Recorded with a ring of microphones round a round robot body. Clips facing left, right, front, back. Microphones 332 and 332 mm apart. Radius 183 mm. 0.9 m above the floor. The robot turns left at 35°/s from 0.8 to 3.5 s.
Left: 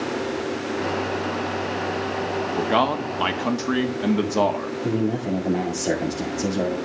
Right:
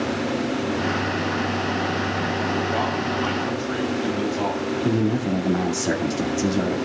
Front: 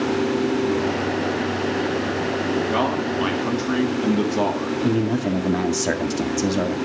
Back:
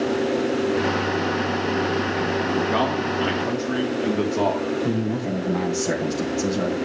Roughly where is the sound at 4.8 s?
Ahead.